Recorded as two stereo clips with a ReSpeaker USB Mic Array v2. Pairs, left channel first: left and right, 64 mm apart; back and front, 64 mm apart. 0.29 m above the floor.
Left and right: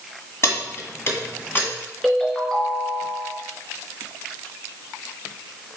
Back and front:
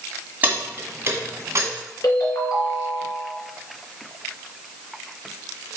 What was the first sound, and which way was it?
Keys jangling, 55° left.